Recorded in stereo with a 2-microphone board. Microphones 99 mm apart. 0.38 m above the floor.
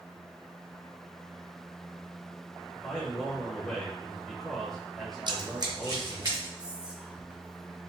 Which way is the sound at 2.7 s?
Centre (ahead or behind).